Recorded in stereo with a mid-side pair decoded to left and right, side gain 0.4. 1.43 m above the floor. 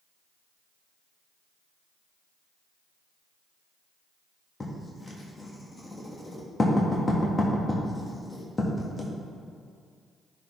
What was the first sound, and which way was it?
Writing, 25° left.